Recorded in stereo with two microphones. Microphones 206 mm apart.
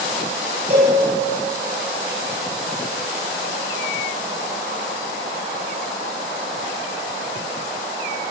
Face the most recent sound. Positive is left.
turn(degrees=-45)  # may be behind; listen again after turning